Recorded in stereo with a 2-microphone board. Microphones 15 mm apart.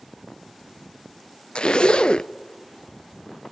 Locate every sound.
1.6 s a zipper: 65° left (ahead or behind), 0.6 m